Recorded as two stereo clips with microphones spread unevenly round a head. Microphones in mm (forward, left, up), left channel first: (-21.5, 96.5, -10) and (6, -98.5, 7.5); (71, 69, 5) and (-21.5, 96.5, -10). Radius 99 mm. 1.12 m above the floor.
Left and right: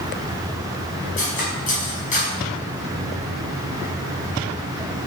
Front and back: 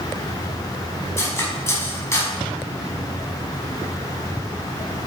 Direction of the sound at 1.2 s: 45° left.